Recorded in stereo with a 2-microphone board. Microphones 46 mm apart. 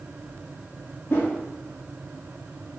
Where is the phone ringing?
No phone ringing in this recording.